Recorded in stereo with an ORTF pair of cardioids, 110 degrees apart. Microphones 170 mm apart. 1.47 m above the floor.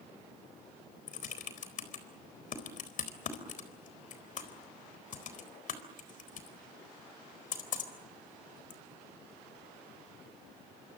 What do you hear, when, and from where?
1.1 s typing on a keyboard: 50° left, 4 m